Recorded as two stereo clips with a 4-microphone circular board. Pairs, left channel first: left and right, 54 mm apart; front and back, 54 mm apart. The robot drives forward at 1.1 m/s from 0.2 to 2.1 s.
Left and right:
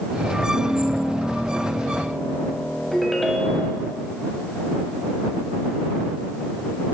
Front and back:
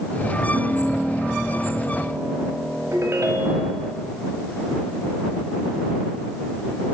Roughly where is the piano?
Behind right.